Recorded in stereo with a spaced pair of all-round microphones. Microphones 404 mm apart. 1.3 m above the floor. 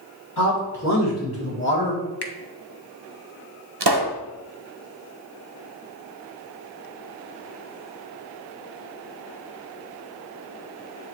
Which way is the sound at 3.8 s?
75° right (ahead or behind).